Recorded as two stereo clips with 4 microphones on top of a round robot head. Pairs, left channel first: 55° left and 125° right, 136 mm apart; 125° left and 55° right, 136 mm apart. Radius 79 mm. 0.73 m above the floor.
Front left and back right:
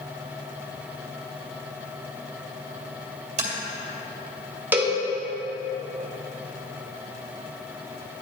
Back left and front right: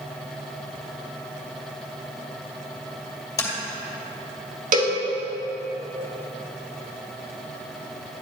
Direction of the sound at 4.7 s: 50° right.